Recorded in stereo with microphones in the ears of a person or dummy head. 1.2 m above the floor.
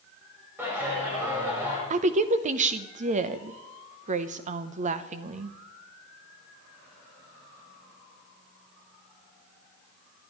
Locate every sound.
0.6 s a clap: 15° right (ahead or behind), 5 m
1.9 s a woman speaking: 40° right (ahead or behind), 0.8 m